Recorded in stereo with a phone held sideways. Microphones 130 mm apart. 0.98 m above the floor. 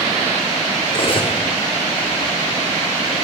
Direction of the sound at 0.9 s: 45° left (ahead or behind).